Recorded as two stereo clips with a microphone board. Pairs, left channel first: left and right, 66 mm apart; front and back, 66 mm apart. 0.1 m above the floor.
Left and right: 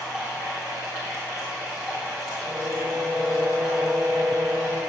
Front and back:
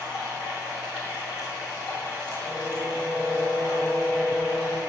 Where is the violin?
30° right, 4 m.